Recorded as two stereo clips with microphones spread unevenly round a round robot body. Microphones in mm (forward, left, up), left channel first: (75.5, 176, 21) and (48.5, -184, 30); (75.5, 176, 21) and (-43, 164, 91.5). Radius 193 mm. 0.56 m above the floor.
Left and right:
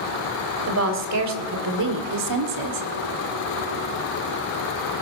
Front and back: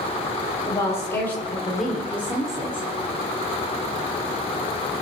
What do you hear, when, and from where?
0.7 s a woman speaking: 50° right, 3 m; by 2.9 s 105° right, 1.6 m